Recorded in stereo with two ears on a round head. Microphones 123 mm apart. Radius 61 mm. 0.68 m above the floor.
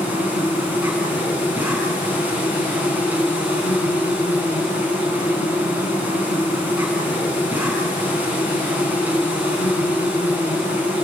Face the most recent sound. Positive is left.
turn(degrees=-15)  # may be behind; listen again after turning